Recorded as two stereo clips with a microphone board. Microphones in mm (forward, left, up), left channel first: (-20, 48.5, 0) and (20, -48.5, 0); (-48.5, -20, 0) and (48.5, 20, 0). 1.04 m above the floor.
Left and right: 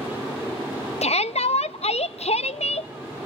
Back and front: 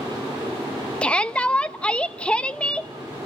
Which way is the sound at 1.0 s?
120° left.